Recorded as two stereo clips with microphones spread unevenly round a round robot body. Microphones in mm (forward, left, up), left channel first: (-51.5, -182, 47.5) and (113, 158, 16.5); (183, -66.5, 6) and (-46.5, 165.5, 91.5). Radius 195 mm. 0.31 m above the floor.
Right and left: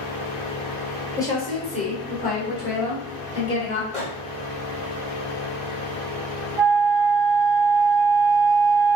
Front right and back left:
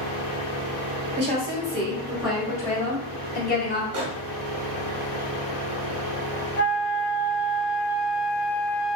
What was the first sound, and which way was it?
A woman speaking, 165° left.